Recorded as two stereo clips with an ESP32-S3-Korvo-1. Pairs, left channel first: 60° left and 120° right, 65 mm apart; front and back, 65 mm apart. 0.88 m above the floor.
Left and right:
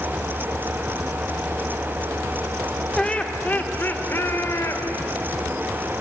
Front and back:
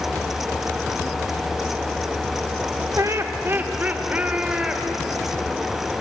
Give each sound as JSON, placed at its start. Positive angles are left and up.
{"t": 3.0, "sound": "laughter", "azimuth_deg": 140, "distance_m": 2.0}